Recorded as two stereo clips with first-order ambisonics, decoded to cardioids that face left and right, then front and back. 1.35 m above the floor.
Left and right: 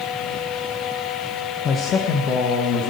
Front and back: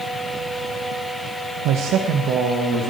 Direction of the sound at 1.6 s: 150° left.